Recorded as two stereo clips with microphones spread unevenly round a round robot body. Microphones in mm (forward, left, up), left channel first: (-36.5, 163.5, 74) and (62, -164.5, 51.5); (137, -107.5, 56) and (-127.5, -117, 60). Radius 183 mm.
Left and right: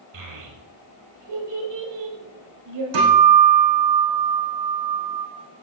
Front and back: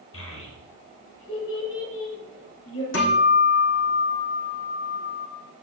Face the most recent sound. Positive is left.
turn(degrees=-40)